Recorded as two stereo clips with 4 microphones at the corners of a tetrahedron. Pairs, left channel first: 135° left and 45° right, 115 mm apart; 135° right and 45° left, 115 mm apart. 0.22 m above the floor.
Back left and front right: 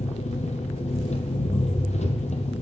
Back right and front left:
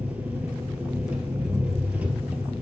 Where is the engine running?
125° left, 1.7 m.